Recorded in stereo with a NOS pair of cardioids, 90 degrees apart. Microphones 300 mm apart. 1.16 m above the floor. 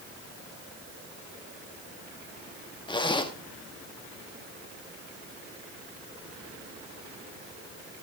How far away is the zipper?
About 1.7 m.